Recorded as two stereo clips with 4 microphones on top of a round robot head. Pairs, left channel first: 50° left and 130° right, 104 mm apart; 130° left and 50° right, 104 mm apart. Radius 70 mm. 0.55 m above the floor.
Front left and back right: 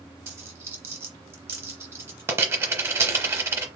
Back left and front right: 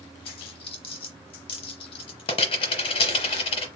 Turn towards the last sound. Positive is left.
turn(degrees=165)